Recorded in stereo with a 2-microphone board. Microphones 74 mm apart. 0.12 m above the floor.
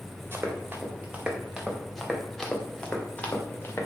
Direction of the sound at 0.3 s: 30° right (ahead or behind).